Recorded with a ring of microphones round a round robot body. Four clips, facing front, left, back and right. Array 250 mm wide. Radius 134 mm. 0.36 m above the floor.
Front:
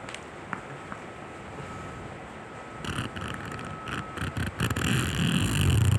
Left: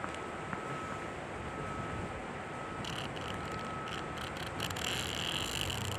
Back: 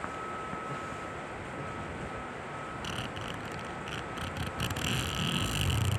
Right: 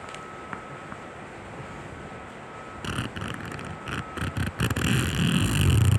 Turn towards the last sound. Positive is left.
turn(degrees=-70)